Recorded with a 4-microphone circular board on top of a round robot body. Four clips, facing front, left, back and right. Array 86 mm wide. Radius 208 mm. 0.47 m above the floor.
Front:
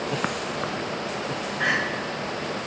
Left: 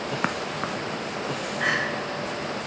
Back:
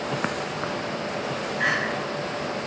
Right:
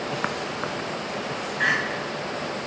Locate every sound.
1.6 s crying: 95° right, 1.6 m